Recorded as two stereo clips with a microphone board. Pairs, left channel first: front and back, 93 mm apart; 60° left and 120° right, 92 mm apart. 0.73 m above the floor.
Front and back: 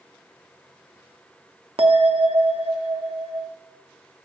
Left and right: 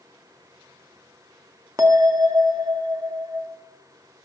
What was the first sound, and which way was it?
A bell, 175° right.